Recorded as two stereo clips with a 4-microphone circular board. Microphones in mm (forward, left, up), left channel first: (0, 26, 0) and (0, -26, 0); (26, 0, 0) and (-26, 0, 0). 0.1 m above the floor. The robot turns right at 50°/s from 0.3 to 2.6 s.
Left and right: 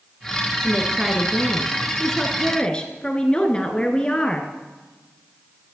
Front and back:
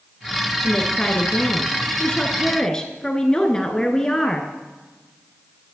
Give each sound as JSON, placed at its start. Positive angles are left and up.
{"t": 0.6, "sound": "a woman speaking", "azimuth_deg": -45, "distance_m": 1.1}